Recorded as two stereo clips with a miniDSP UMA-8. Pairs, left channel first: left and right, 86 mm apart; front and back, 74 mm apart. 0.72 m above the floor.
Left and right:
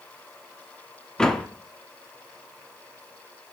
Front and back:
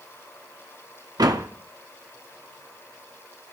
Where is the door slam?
170° left, 1.0 m.